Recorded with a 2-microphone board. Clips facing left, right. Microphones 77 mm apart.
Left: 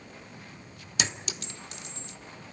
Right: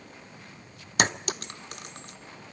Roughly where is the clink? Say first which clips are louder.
Right 7 dB; right.